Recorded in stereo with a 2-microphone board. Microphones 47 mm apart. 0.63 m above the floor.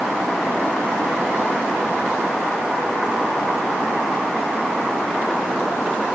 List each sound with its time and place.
Only background noise.